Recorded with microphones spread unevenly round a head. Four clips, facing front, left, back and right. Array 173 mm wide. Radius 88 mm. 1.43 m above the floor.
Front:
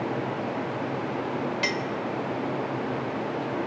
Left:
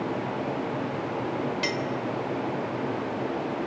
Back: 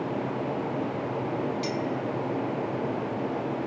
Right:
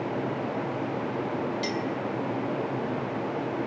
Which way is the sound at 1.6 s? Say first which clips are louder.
Left 1 dB, even; 25° left.